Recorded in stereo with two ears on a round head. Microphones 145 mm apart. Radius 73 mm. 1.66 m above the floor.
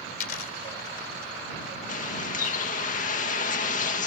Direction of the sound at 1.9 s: 50° left (ahead or behind).